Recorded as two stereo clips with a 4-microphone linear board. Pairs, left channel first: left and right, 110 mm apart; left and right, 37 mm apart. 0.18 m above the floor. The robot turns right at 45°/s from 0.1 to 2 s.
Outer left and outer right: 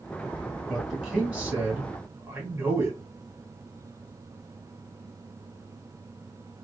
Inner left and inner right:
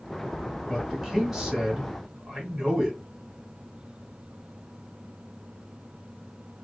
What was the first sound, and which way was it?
A man speaking, centre (ahead or behind).